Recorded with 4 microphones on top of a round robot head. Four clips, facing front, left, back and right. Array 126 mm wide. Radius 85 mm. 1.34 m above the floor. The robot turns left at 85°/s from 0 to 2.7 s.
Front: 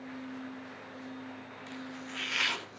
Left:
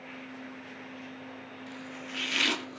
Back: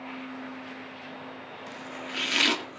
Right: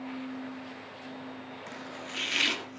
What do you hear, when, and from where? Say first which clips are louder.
1.7 s chopping: left 1 dB, back 3 dB; 120° right, 2.5 m; by 2.8 s 150° left, 2.5 m